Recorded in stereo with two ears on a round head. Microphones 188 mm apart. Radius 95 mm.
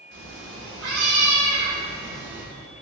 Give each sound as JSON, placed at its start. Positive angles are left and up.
{"t": 0.1, "sound": "a cat meowing", "side_deg": -60, "distance_m": 1.4}